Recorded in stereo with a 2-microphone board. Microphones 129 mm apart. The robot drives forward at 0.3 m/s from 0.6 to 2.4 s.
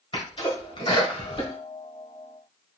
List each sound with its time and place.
0.1 s a sneeze: 40° left (ahead or behind), 1.8 m